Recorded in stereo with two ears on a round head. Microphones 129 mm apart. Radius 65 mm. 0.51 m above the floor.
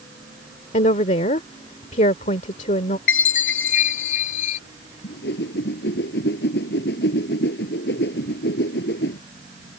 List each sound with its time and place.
0.7 s a woman speaking: 55° left (ahead or behind)
3.1 s a chime: 65° left (ahead or behind)
5.0 s a whoosh: 80° left